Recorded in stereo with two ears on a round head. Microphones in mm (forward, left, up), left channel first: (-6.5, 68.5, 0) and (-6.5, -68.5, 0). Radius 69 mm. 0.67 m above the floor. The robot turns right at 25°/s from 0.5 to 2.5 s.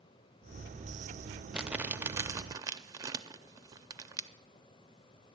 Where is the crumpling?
5° right (ahead or behind), 0.6 m; by 4.3 s 20° right (ahead or behind), 0.6 m.